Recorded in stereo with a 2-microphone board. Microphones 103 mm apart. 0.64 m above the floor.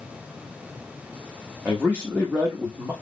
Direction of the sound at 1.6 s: 15° right (ahead or behind).